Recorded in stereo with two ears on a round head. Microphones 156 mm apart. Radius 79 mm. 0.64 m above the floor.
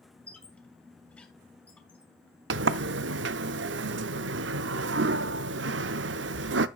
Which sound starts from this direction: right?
A sliding door, at 2.5 s.